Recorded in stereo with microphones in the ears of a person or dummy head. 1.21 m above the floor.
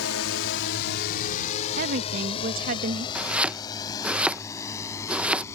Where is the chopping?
5° right (ahead or behind).